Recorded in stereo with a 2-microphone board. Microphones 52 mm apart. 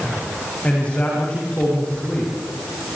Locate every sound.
0.6 s a man speaking: 30° left (ahead or behind), 7 m